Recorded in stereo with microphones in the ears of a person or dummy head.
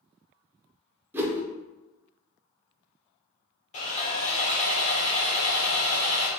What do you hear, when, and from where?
1.1 s a whoosh: 10° right (ahead or behind), 0.9 m
3.7 s sawing: 35° left (ahead or behind), 1.0 m